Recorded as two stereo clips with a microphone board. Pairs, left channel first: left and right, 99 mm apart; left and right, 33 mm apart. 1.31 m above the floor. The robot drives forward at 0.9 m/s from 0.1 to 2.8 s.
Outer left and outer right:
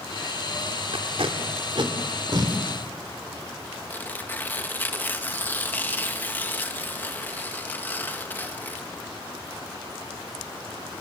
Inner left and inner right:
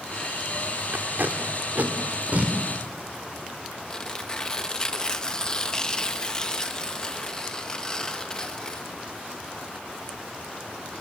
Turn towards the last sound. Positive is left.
turn(degrees=20)  # may be behind; listen again after turning